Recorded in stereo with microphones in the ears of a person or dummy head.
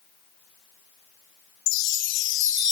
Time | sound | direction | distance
1.7 | a chime | 80° left | 0.6 m